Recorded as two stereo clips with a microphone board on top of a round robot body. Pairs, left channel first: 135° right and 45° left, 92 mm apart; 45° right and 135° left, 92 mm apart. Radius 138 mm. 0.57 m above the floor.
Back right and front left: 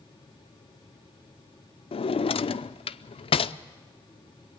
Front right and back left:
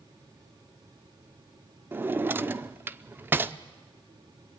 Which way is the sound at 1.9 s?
155° right.